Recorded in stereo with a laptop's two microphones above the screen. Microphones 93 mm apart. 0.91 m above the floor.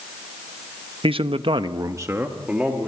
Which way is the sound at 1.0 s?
65° right (ahead or behind).